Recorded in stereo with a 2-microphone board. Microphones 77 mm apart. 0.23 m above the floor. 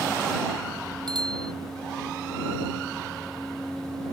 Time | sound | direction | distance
1.1 | a bicycle bell | 70° right (ahead or behind) | ?